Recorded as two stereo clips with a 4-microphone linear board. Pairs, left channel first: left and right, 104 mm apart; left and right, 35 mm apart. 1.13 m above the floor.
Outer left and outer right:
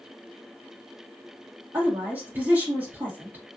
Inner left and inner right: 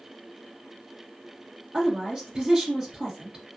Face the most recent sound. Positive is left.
turn(degrees=-20)  # may be behind; listen again after turning